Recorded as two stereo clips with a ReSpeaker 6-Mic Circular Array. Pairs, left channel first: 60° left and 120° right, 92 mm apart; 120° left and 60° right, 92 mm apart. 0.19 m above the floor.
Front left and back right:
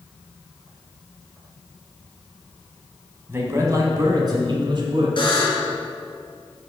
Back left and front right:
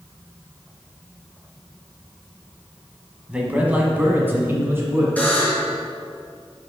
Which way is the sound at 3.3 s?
120° right.